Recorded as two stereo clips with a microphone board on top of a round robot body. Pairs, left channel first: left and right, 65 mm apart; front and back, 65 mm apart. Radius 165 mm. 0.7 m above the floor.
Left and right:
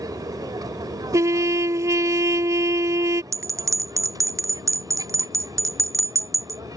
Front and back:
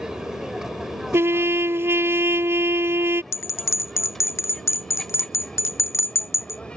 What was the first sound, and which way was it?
An aircraft, 100° right.